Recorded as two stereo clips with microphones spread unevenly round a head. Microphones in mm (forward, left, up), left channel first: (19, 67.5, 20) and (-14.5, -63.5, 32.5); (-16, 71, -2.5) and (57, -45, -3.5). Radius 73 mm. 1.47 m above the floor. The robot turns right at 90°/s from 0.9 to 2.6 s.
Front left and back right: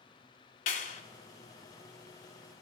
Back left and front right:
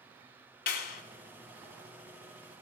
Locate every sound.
0.7 s a clap: 110° left, 4 m; by 1.0 s 120° left, 4 m